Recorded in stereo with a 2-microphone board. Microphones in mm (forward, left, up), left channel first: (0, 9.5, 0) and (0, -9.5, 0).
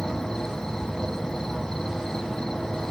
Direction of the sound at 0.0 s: 35° left (ahead or behind).